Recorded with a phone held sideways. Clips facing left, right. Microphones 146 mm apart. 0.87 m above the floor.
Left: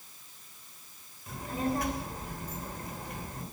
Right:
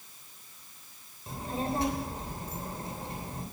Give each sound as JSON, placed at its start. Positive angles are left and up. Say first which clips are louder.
{"t": 1.3, "sound": "a child speaking", "louder": "left 1 dB", "side_deg": -30, "distance_m": 3.0}